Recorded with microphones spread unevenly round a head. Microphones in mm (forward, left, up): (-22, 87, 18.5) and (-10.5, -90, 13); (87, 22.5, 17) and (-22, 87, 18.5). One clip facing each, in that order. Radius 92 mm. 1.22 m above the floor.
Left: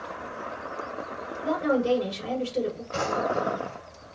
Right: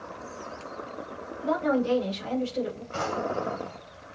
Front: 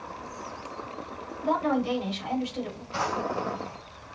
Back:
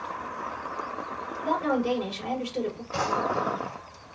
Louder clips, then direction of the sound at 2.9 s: Left 2 dB, back 1 dB; 125° left.